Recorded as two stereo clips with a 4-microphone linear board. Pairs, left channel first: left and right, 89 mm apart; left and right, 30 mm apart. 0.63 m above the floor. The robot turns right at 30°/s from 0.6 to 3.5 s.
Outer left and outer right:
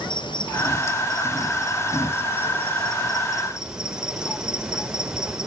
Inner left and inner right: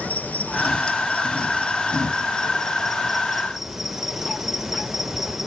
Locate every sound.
0.0 s an insect: 100° left, 3 m; by 5.5 s 175° right, 3 m